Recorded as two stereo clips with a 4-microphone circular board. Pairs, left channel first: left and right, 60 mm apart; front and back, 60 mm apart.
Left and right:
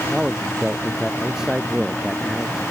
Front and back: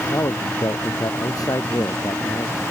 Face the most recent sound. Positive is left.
turn(degrees=-10)